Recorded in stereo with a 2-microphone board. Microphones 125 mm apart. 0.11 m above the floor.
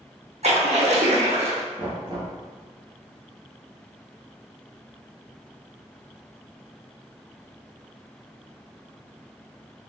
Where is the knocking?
45° right (ahead or behind), 1.9 m.